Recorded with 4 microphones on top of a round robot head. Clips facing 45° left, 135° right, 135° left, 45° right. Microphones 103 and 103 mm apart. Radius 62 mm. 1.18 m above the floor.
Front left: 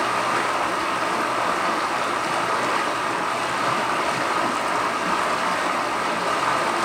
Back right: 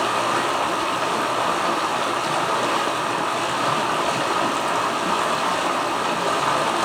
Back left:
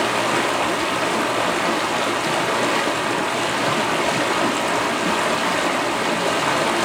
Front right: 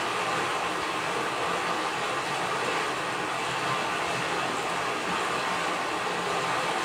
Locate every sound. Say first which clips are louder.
0.0 s running water: back right 1 dB, back left 9 dB; 145° left, 2.5 m